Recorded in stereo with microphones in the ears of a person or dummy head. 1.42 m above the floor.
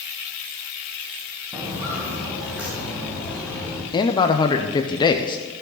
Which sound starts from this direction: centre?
Footsteps, at 1.5 s.